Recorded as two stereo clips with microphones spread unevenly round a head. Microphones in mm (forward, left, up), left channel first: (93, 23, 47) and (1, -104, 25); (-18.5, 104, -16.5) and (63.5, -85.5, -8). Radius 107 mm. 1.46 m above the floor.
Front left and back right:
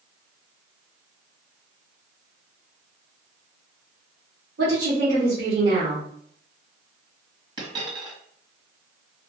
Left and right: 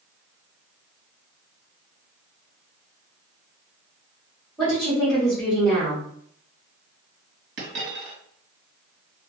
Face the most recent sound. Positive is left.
turn(degrees=-65)